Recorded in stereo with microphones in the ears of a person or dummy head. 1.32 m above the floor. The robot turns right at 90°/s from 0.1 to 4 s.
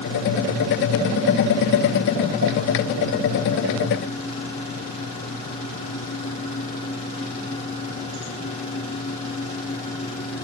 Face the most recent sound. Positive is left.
No sound to turn to.